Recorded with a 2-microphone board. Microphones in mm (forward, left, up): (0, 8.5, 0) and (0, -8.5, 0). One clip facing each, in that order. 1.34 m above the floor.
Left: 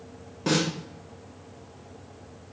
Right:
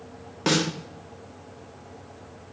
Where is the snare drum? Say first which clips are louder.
Right 2 dB; 45° right (ahead or behind), 1.7 m.